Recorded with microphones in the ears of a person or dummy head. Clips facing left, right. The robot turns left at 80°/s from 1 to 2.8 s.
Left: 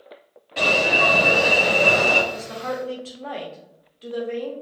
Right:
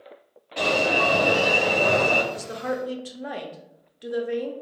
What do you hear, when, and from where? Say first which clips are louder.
0.6 s an alarm: left 1 dB; 175° left, 1.7 m; by 2.2 s 75° left, 1.7 m
2.3 s a woman speaking: even; 110° right, 0.6 m; by 4.5 s 150° right, 0.6 m